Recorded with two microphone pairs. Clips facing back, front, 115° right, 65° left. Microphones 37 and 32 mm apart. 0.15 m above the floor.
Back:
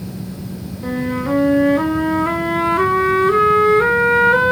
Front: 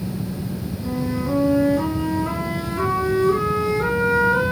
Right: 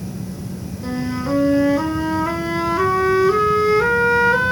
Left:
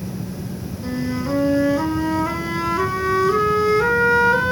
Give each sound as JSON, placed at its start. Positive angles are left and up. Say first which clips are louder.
{"t": 0.8, "sound": "a flute", "louder": "back 4 dB, right 1 dB", "azimuth_deg": 170, "distance_m": 1.1}